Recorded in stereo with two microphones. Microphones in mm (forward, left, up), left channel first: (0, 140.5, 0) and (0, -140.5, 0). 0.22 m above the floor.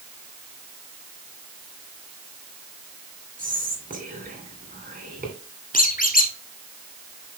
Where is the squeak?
30° left (ahead or behind), 1.2 m.